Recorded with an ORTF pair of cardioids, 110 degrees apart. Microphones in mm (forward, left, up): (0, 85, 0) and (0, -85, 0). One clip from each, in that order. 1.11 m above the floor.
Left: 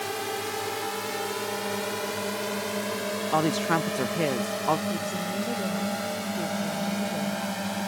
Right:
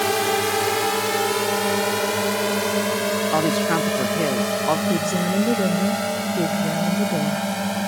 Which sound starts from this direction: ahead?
A woman speaking, at 3.3 s.